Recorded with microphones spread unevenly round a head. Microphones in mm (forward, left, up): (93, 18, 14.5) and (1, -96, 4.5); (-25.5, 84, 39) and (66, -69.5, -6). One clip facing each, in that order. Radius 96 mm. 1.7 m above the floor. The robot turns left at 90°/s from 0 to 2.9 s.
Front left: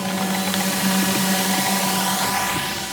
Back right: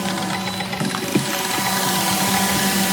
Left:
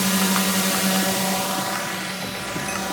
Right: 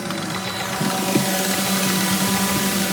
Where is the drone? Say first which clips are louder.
Front left 1 dB, left 5 dB; 140° left; by 2.9 s 120° right.